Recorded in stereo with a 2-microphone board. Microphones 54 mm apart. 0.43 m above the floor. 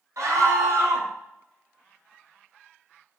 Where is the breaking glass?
I don't hear breaking glass.